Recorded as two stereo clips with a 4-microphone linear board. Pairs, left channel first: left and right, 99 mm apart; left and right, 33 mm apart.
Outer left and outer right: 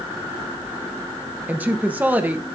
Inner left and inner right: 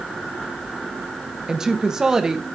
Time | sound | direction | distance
1.5 | a woman speaking | 15° right (ahead or behind) | 0.7 m